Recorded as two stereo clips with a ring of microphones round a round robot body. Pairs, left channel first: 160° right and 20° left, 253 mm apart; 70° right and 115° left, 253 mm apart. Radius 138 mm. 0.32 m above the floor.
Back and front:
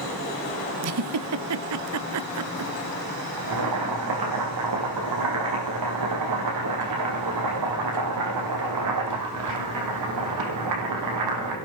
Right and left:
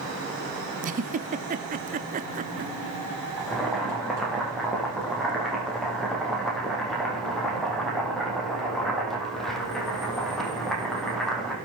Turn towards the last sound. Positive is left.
turn(degrees=20)